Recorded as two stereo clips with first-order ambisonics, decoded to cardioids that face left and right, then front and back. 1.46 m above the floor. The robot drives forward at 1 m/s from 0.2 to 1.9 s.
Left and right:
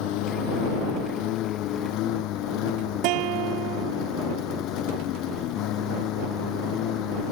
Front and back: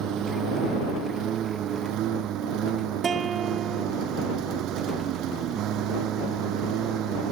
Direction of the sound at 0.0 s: 120° left.